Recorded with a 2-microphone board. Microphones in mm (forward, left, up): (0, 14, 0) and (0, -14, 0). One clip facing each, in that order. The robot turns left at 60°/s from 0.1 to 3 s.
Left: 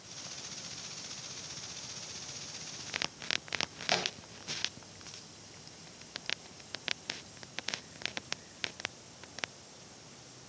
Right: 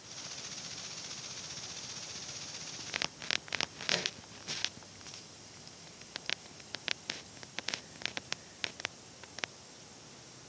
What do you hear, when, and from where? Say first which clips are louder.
3.9 s a thud: left 2 dB; 65° left (ahead or behind), 3 m